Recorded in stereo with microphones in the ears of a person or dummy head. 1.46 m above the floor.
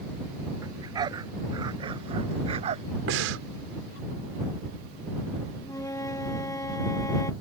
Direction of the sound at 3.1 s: 75° right (ahead or behind).